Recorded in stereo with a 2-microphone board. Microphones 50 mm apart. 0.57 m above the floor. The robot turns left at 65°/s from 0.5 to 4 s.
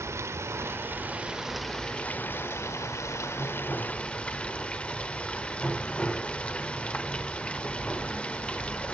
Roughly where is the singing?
No singing in this recording.